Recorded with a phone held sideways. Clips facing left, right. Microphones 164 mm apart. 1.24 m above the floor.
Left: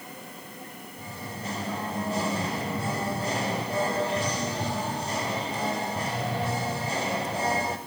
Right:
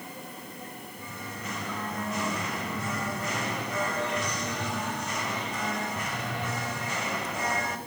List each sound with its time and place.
1.0 s singing: 30° left (ahead or behind), 1.3 m